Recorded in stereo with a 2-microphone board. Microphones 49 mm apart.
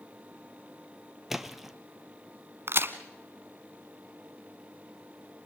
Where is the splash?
5° right (ahead or behind), 1.1 m.